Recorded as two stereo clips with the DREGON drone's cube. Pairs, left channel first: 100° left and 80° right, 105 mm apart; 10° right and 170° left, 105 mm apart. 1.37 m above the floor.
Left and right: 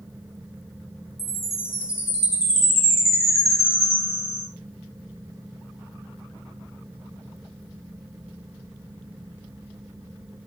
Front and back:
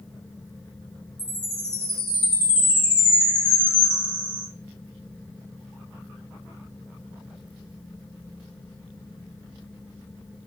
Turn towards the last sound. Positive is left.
turn(degrees=35)